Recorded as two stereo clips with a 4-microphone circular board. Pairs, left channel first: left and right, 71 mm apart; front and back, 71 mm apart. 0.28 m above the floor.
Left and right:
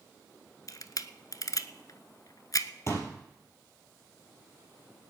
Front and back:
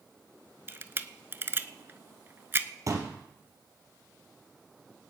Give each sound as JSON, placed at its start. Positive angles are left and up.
{"t": 0.7, "sound": "a camera shutter", "azimuth_deg": 120, "distance_m": 0.7}
{"t": 2.9, "sound": "a pop", "azimuth_deg": 135, "distance_m": 3.0}